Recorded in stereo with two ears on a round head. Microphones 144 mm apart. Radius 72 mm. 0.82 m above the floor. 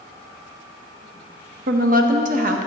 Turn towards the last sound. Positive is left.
turn(degrees=-55)  # may be behind; listen again after turning